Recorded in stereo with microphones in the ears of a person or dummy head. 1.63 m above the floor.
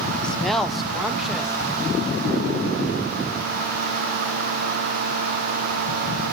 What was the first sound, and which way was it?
A woman speaking, 10° left (ahead or behind).